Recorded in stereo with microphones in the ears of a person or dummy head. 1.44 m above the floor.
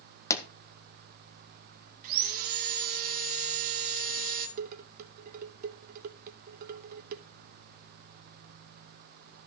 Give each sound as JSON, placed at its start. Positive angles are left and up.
{"t": 0.3, "sound": "a pop", "side_deg": 15, "distance_m": 0.9}
{"t": 2.0, "sound": "sawing", "side_deg": -50, "distance_m": 2.0}
{"t": 4.6, "sound": "dishes clattering", "side_deg": -50, "distance_m": 0.9}